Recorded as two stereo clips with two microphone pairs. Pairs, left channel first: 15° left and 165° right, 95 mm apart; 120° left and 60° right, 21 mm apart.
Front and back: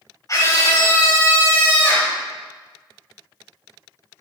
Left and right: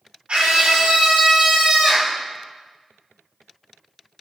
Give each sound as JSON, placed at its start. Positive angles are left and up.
{"t": 0.3, "sound": "a scream", "azimuth_deg": -35, "distance_m": 3.5}